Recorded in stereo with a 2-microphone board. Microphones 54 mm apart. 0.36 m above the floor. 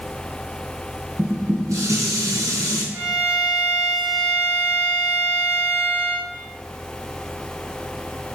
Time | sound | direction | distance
1.2 | dishes clattering | 75° right (ahead or behind) | 3 m
2.9 | a violin | 15° right (ahead or behind) | 1.9 m